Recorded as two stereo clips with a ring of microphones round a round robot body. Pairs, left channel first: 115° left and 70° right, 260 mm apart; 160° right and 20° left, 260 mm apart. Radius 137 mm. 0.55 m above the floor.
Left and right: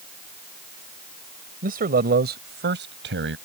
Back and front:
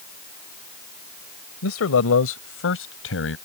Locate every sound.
1.6 s a man speaking: 125° right; by 3.4 s 115° right